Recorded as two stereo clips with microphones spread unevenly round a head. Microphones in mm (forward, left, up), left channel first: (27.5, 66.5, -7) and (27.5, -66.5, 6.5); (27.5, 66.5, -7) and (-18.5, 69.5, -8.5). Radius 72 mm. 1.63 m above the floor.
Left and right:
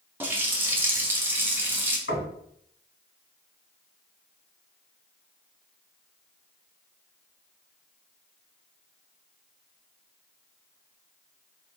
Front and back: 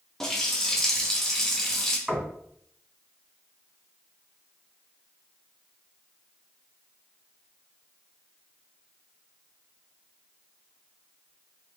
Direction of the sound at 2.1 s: 95° left.